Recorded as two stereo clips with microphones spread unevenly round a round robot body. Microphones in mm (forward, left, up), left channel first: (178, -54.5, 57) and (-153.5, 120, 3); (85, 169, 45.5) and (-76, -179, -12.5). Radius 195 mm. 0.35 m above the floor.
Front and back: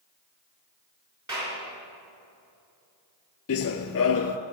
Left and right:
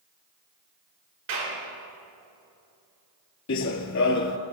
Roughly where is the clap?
Behind right.